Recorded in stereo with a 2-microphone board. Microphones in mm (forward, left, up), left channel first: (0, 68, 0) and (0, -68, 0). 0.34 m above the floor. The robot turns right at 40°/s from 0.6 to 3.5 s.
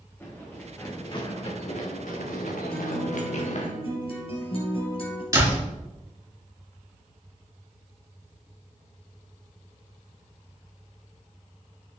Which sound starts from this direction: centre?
Running footsteps, at 0.2 s.